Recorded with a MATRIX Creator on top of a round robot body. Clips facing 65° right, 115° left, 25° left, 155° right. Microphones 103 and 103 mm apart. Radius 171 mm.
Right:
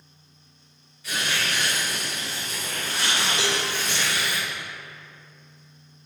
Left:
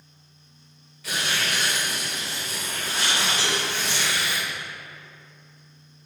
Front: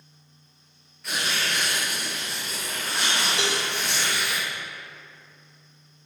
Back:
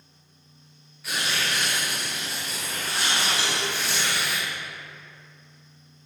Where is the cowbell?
40° right, 2 m.